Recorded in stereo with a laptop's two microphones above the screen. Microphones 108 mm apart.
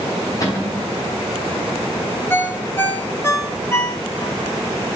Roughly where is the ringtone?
Left.